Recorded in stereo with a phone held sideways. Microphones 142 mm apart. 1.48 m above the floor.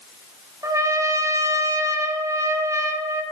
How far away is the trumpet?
About 0.5 m.